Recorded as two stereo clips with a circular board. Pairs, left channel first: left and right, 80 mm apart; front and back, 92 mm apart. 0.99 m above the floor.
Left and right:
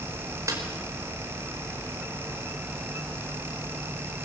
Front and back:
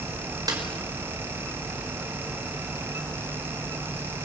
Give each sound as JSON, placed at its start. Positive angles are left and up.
{"t": 0.5, "sound": "a snare drum", "azimuth_deg": -135, "distance_m": 5.0}